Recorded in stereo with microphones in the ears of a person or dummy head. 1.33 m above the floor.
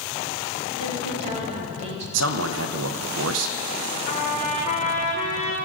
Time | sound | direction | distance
0.8 | a woman speaking | 35° right (ahead or behind) | 2.5 m
2.1 | a man speaking | 75° right (ahead or behind) | 0.7 m
4.1 | a trumpet | 35° left (ahead or behind) | 0.8 m